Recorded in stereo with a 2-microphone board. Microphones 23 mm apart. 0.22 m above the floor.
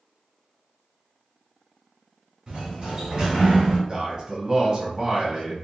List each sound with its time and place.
2.5 s a sliding door: 35° right (ahead or behind), 1.8 m
3.9 s a man speaking: 25° right (ahead or behind), 1.1 m